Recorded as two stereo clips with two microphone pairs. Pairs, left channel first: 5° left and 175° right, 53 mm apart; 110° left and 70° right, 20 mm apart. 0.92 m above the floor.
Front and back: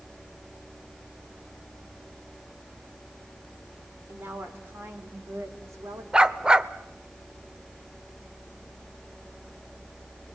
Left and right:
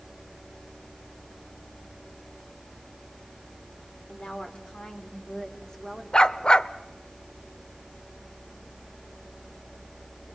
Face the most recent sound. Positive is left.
turn(degrees=120)